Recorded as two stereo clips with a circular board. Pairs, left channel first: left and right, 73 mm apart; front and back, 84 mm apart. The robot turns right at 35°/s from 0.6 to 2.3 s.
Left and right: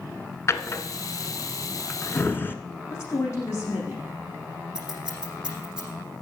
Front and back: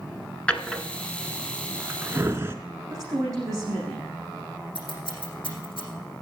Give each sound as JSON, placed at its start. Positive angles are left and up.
{"t": 0.5, "sound": "a drawer", "azimuth_deg": 70, "distance_m": 1.0}
{"t": 2.9, "sound": "a woman speaking", "azimuth_deg": 130, "distance_m": 9.0}
{"t": 4.8, "sound": "scissors", "azimuth_deg": -10, "distance_m": 6.0}